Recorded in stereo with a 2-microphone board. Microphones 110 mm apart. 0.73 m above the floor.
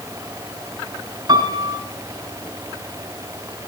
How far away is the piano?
About 2.5 m.